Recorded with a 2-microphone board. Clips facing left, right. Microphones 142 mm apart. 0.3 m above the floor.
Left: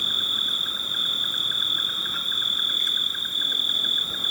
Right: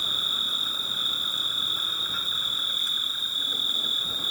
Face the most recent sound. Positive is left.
turn(degrees=65)  # may be behind; listen again after turning